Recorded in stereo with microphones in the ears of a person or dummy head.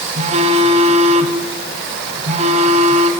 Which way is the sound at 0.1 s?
40° right (ahead or behind).